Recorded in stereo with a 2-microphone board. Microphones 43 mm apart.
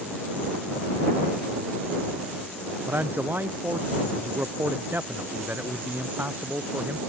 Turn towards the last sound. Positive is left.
turn(degrees=-45)  # may be behind; listen again after turning